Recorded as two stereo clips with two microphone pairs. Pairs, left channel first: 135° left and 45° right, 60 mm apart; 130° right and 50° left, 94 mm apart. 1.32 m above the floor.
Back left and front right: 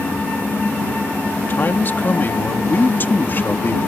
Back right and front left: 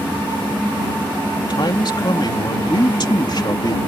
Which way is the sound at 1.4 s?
170° right.